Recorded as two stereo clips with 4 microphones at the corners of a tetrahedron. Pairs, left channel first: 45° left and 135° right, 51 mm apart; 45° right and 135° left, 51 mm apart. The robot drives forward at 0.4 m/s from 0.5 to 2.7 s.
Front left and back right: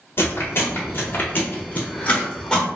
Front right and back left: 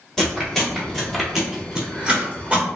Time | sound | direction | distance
0.2 | chewing | 35° left | 1.1 m